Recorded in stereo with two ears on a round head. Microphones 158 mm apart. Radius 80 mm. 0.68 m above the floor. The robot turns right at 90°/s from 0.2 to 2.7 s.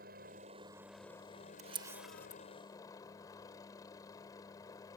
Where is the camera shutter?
40° right (ahead or behind); by 2.4 s 30° left (ahead or behind).